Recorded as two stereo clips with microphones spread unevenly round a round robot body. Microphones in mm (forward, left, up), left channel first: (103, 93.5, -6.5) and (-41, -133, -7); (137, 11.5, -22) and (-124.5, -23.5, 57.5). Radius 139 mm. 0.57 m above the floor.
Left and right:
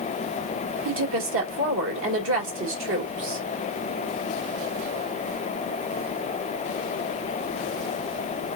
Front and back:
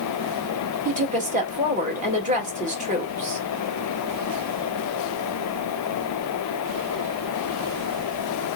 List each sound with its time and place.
0.8 s a woman speaking: 100° right, 1.8 m